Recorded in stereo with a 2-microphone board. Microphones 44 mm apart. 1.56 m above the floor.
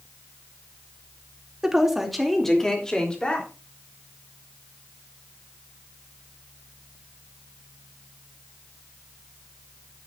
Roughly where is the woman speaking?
Centre.